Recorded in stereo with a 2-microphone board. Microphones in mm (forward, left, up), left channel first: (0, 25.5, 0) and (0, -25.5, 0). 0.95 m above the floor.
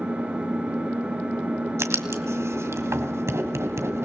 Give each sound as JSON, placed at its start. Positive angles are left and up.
{"t": 0.0, "sound": "an engine running", "side_deg": -25, "distance_m": 5.5}
{"t": 1.8, "sound": "writing", "side_deg": -70, "distance_m": 2.0}